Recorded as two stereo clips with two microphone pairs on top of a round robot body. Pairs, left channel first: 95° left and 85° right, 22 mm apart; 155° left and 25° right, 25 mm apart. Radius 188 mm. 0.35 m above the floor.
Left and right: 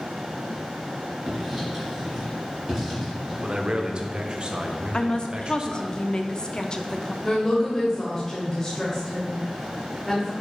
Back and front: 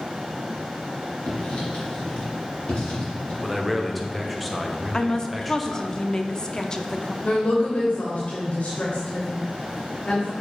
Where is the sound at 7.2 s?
170° left, 1.8 m.